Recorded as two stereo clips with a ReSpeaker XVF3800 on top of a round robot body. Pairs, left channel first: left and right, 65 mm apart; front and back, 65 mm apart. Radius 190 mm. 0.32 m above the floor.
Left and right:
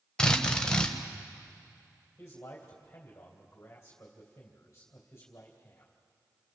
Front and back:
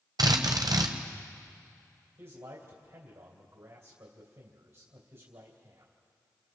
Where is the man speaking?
150° left, 3 m.